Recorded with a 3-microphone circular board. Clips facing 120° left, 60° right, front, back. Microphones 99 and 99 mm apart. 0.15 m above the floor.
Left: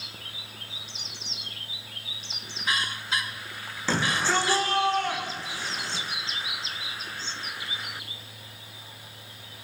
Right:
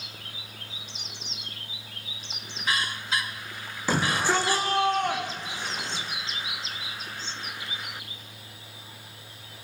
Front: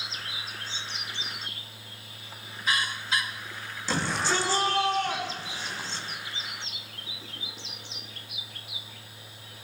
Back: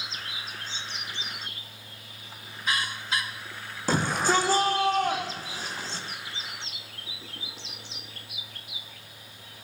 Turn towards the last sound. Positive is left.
turn(degrees=-130)